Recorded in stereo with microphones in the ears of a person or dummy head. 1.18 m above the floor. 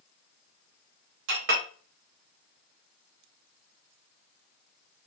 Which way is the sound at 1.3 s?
45° right (ahead or behind).